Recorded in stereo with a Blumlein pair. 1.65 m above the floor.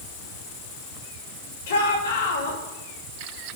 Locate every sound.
1.7 s a shout: 60° left, 7 m